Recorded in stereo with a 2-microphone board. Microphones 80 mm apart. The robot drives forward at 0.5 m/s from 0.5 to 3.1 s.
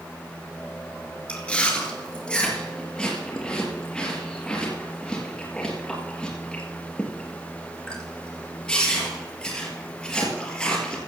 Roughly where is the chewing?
Centre.